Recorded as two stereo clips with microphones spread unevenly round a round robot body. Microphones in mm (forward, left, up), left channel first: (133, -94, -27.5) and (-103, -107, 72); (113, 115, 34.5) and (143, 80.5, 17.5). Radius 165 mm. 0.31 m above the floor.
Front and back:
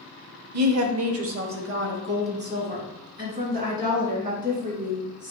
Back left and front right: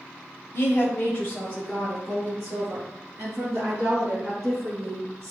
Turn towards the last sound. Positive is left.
turn(degrees=-110)